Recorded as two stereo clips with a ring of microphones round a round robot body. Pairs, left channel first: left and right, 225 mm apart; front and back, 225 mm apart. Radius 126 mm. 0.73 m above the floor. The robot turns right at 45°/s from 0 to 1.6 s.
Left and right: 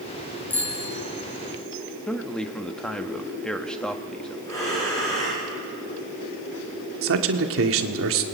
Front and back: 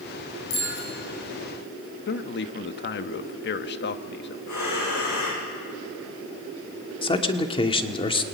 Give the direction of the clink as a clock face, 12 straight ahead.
No clink in this recording.